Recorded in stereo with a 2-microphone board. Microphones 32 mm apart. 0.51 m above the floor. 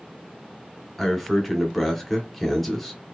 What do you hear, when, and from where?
1.0 s a man speaking: 5° left (ahead or behind), 0.9 m